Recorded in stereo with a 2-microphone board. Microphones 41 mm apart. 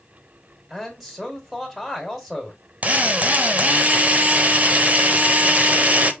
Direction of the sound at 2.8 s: 35° right (ahead or behind).